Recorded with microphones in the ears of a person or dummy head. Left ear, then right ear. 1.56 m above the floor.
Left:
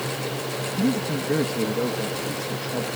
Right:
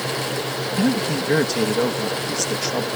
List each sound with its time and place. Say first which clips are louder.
0.8 s a man speaking: right 4 dB; 55° right (ahead or behind)